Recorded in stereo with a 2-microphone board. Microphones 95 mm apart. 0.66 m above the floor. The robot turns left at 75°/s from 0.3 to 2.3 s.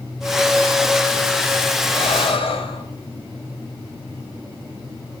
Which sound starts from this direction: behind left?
Breathing, at 1.9 s.